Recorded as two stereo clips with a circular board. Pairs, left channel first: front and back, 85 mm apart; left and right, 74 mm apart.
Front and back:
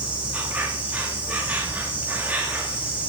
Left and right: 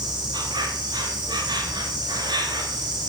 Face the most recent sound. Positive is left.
turn(degrees=-105)